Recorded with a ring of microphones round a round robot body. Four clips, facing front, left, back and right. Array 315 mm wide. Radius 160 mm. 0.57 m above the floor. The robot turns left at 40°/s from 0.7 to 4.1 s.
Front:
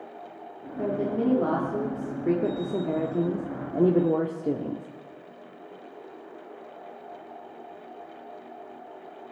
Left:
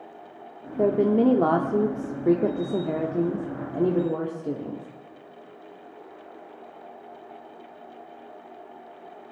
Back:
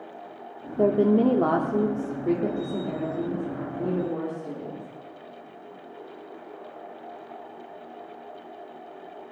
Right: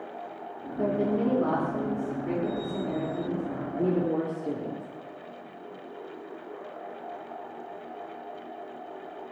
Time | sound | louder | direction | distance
0.8 | a woman speaking | left 6 dB, back 7 dB | 145° left | 1.2 m